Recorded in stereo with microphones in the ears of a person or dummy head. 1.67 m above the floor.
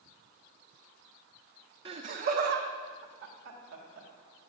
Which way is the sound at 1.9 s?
25° right (ahead or behind).